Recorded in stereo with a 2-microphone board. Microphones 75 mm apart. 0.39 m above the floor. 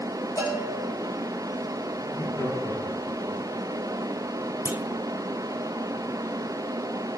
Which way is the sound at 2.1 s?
65° left (ahead or behind).